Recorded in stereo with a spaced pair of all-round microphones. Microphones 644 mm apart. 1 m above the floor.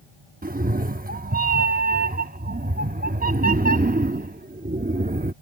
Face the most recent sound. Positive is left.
turn(degrees=-15)  # may be behind; listen again after turning